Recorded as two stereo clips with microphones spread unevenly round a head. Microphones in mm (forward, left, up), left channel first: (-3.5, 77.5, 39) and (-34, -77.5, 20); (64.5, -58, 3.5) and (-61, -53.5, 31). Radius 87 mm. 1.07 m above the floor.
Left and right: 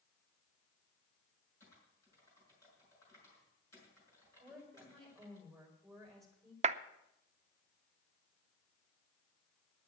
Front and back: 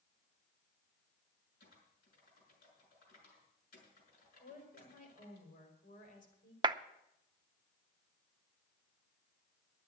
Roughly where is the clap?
Behind right.